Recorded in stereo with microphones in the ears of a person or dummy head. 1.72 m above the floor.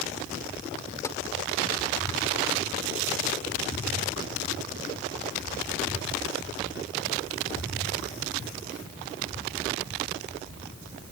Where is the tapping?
20° left (ahead or behind).